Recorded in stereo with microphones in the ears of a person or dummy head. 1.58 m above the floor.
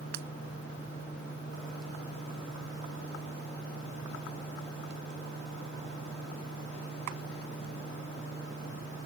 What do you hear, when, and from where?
0.1 s breaking glass: 65° right (ahead or behind)